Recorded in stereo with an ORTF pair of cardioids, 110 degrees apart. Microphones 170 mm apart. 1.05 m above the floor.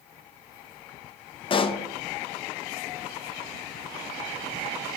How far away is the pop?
About 0.5 m.